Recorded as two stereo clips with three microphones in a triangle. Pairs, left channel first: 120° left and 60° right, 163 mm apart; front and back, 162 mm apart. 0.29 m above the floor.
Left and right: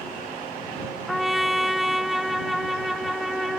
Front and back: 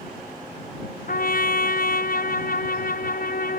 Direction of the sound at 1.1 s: 30° left.